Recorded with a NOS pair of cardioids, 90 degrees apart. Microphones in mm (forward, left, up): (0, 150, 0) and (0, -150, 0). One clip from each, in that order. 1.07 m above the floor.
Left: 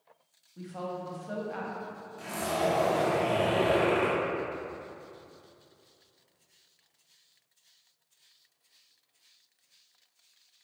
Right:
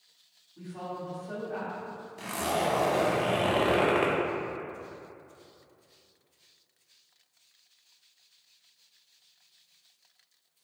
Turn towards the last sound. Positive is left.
turn(degrees=-35)